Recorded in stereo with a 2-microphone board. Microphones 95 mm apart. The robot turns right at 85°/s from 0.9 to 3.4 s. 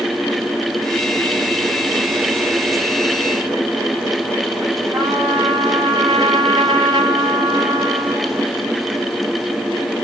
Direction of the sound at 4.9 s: 50° right (ahead or behind).